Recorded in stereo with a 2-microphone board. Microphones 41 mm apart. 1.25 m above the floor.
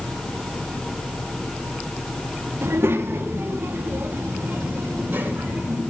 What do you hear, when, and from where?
2.6 s a child speaking: 90° right, 1.8 m; by 5.8 s 45° right (ahead or behind), 6 m